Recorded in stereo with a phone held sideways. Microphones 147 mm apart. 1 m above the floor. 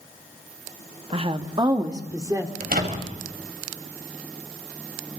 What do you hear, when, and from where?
1.1 s a woman speaking: 40° right (ahead or behind), 1.1 m; by 2.5 s 20° right (ahead or behind), 2.5 m
2.6 s a door slam: 85° right, 3.5 m